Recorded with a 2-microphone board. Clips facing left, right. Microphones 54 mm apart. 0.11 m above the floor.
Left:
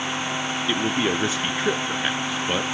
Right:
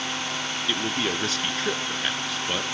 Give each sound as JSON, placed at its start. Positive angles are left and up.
{"t": 0.7, "sound": "a man speaking", "side_deg": 20, "distance_m": 1.2}